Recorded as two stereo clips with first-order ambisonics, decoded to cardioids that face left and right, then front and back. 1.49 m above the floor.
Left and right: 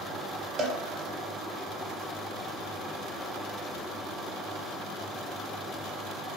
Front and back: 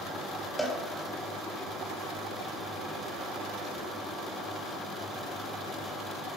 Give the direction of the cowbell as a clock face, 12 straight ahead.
3 o'clock.